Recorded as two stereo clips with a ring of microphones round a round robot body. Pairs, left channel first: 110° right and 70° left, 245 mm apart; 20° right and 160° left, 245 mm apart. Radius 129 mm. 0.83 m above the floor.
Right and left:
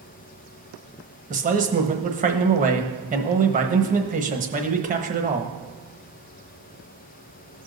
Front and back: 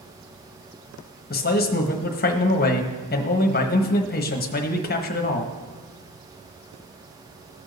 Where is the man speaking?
20° left, 1.0 m.